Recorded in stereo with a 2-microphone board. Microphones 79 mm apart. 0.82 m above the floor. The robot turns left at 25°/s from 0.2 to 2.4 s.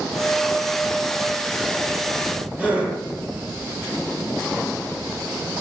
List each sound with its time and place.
2.6 s a gasp: 20° right (ahead or behind), 7 m